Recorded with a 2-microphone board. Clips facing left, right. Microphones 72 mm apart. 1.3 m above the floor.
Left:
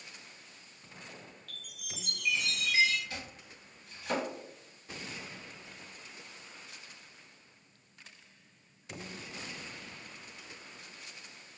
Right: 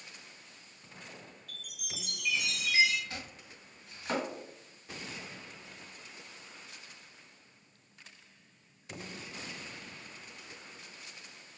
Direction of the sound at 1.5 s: 10° right (ahead or behind).